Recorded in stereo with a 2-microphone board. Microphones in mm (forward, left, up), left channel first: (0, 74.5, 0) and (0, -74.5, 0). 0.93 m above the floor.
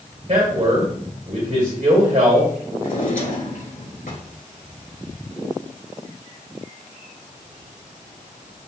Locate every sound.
0.3 s a man speaking: 55° right (ahead or behind), 1.9 m
2.8 s a drawer: 75° left (ahead or behind), 3 m